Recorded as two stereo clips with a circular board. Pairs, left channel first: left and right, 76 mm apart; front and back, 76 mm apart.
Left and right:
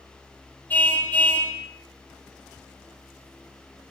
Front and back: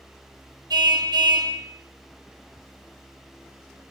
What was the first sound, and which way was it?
A car horn, 160° left.